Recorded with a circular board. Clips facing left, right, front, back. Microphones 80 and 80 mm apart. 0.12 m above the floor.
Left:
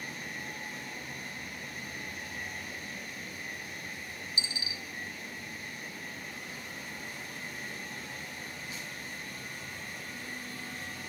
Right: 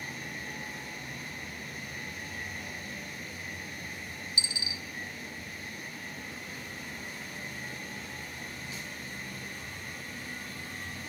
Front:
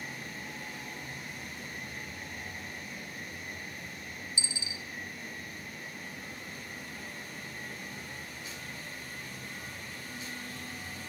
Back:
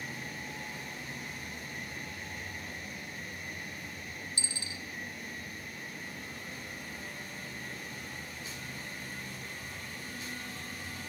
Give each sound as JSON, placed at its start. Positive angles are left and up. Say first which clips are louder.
{"t": 4.4, "sound": "a dropped coin", "louder": "right 1 dB, front 1 dB", "azimuth_deg": 140, "distance_m": 1.2}